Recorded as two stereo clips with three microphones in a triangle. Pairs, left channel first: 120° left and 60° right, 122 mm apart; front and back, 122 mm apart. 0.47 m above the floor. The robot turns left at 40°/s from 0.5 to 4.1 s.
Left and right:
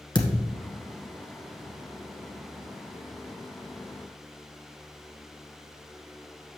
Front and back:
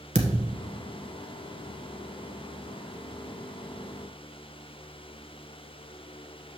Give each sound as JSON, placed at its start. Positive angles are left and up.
{"t": 0.1, "sound": "a thud", "azimuth_deg": 170, "distance_m": 1.3}